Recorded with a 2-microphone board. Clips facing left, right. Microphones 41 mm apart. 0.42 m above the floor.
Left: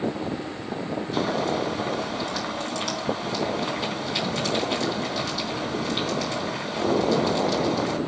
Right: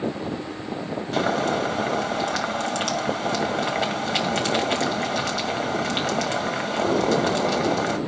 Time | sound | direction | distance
1.1 | boiling | 60° right (ahead or behind) | 2.5 m